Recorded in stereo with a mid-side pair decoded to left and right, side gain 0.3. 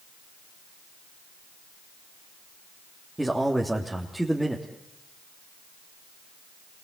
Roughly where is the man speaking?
Ahead.